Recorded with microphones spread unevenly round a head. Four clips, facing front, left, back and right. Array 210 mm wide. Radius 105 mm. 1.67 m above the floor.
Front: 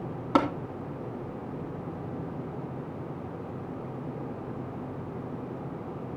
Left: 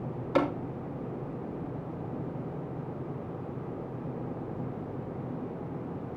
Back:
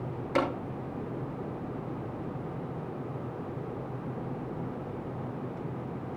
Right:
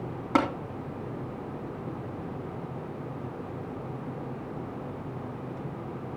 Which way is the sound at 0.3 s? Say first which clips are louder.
Right 1 dB, front 4 dB; 50° right.